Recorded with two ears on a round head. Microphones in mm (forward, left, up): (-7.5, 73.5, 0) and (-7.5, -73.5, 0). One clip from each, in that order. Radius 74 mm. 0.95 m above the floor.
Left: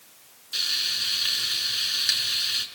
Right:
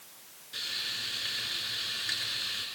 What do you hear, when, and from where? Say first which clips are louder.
0.5 s frying: left 9 dB; 85° left, 7 m